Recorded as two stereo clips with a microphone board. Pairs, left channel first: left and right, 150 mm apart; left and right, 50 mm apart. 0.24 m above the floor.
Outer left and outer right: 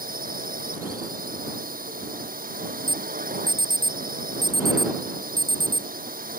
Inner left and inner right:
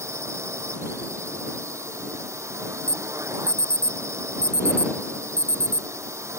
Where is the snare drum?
I don't hear a snare drum.